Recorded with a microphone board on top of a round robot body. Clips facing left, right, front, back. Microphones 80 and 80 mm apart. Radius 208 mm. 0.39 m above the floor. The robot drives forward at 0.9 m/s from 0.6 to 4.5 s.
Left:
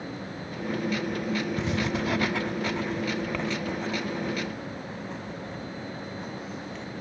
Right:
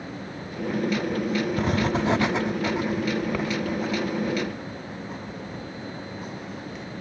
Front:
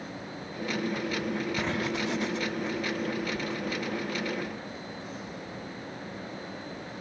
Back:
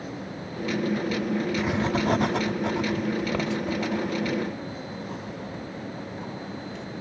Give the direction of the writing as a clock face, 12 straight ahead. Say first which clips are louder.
Right 4 dB, back 5 dB; 3 o'clock.